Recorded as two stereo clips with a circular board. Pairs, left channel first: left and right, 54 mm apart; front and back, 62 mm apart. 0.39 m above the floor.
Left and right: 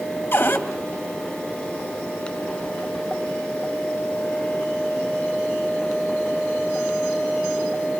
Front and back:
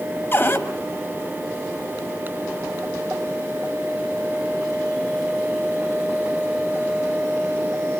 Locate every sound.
0.3 s a cupboard door: 45° left, 2 m